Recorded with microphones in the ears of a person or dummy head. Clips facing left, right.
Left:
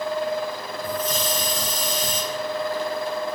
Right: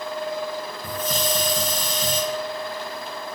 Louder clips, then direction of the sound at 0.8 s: Left 1 dB; 50° right (ahead or behind).